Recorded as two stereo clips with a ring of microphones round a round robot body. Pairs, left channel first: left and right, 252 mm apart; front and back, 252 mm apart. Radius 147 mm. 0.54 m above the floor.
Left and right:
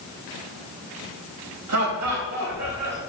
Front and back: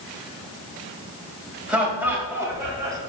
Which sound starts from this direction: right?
Laughter, at 1.7 s.